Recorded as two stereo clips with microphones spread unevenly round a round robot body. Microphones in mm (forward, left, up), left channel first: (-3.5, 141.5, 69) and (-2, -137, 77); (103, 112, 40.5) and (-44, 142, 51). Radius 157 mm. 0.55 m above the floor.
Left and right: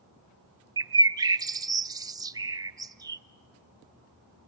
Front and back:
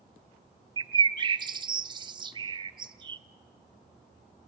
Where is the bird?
160° right, 0.7 m.